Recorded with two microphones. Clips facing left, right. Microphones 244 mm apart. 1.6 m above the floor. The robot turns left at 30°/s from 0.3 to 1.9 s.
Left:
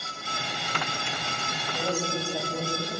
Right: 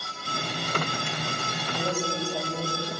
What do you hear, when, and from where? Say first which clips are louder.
1.6 s a woman speaking: even; 20° right (ahead or behind), 9 m; by 3.0 s 10° right (ahead or behind), 9 m